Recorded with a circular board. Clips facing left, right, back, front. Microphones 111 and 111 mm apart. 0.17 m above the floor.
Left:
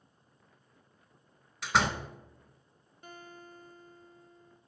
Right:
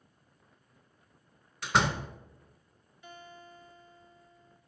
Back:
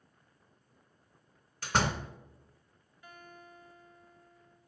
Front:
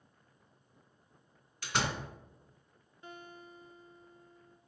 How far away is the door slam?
About 0.9 m.